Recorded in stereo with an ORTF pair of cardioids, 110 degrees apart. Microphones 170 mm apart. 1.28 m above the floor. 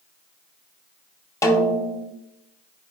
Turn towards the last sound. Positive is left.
turn(degrees=20)